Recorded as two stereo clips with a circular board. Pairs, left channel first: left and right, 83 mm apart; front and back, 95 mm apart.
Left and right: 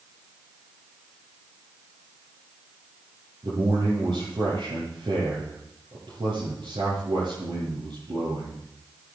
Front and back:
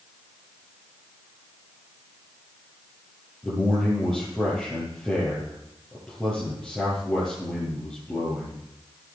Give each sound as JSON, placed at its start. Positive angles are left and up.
{"t": 3.4, "sound": "a man speaking", "azimuth_deg": -90, "distance_m": 8.5}